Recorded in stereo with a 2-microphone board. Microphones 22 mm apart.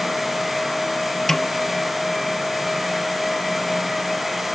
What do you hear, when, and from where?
1.3 s a snare drum: 15° left (ahead or behind), 1.0 m